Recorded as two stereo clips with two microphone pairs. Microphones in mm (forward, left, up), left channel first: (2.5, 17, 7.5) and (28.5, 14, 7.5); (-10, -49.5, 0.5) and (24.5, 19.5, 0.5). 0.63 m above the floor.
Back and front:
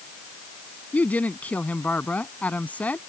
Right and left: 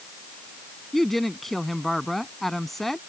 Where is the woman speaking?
155° left.